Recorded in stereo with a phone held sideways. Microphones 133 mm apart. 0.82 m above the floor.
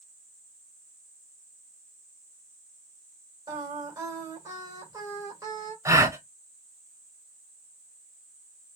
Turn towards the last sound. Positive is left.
turn(degrees=-25)  # may be behind; listen again after turning